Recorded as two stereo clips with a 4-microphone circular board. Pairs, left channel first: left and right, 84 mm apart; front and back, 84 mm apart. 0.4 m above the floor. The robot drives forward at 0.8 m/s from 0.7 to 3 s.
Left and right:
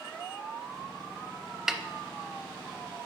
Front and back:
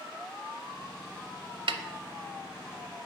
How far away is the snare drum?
About 0.6 m.